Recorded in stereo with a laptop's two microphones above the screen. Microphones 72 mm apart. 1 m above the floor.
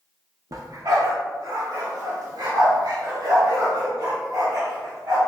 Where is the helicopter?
I don't hear a helicopter.